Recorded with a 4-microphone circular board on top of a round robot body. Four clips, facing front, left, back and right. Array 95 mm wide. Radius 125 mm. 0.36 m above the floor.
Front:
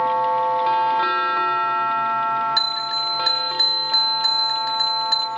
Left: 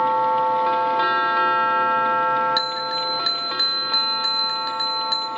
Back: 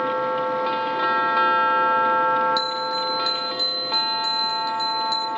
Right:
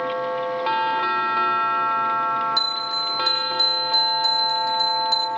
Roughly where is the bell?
Ahead left.